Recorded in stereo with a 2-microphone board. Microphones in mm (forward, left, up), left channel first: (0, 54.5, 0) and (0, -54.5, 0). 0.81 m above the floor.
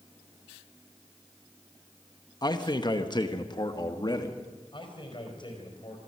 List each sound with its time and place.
2.4 s a man speaking: 35° left (ahead or behind), 1.2 m
4.7 s a man speaking: 45° left (ahead or behind), 4.5 m